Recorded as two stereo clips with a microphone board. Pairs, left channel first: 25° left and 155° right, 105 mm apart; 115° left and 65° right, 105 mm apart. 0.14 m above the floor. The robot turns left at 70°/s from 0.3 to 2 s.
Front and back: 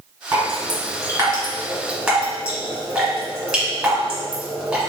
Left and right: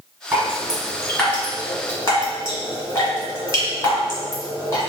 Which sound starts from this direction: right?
Dripping, at 0.3 s.